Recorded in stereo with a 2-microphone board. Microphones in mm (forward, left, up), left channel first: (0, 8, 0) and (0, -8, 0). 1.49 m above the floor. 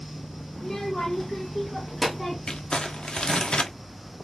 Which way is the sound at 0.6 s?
35° left (ahead or behind).